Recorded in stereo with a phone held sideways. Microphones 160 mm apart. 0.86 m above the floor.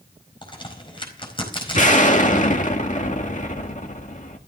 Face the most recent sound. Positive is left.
turn(degrees=50)  # may be behind; listen again after turning